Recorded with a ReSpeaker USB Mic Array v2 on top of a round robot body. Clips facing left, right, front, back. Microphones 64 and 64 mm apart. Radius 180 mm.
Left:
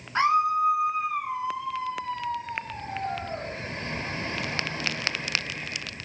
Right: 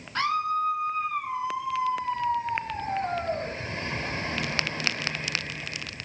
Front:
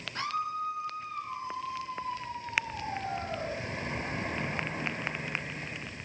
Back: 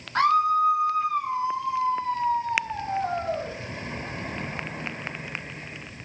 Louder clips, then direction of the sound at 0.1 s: Left 4 dB, back 13 dB; 155° left.